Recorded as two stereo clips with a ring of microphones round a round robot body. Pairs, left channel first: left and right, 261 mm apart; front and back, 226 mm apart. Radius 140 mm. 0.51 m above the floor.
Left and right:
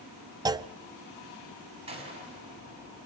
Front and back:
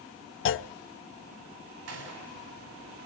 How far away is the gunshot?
About 4.5 m.